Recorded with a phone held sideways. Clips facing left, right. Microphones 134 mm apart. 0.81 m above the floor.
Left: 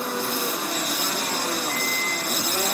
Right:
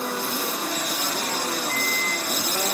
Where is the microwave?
50° left (ahead or behind), 1.2 m.